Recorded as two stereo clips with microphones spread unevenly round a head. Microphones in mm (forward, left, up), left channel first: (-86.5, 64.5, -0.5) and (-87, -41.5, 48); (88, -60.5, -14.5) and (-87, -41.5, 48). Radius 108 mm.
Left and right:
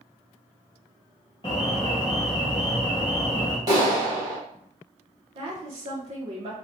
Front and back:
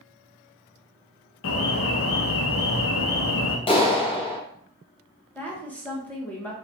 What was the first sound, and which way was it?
An alarm, 5° left.